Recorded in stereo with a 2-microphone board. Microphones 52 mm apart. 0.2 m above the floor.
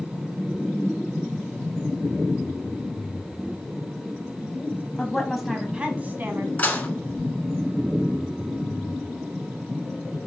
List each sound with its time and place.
5.0 s a woman speaking: 15° left (ahead or behind), 1.1 m; by 6.5 s 45° right (ahead or behind), 1.4 m
6.6 s dishes clattering: 30° left (ahead or behind), 1.4 m